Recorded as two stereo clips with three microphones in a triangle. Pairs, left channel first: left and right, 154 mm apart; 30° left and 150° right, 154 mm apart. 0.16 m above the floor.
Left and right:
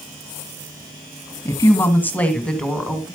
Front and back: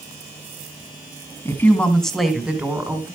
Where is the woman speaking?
70° left, 1.6 m; by 3.1 s 170° right, 1.6 m.